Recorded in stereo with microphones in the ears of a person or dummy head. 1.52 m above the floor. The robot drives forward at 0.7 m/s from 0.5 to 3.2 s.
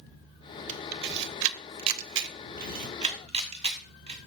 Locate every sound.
0.7 s a camera shutter: 40° right (ahead or behind), 1.0 m; by 4.2 s 35° right (ahead or behind), 1.2 m